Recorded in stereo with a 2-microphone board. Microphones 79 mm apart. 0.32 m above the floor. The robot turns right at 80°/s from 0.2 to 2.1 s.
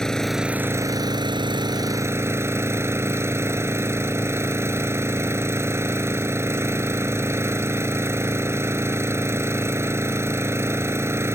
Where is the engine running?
175° left; by 11.4 s 35° right.